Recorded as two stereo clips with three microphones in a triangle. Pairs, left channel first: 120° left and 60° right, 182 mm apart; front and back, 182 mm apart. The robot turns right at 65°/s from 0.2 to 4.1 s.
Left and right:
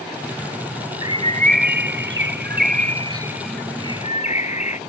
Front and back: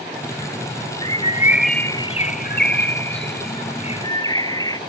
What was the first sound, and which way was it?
A bird, 130° right.